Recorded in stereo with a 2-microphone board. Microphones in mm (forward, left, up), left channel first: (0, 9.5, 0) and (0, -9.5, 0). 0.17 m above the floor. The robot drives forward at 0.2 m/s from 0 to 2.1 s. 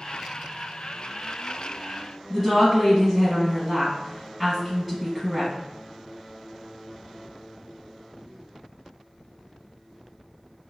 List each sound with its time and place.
2.3 s a woman speaking: 15° right (ahead or behind), 1.5 m